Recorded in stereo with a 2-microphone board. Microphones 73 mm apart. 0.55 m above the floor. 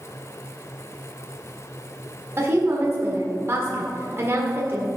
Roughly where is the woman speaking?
Right.